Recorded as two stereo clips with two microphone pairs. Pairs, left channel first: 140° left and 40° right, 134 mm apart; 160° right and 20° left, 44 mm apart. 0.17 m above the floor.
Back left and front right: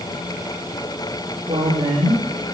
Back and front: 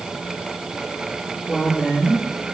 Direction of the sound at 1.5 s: 90° right.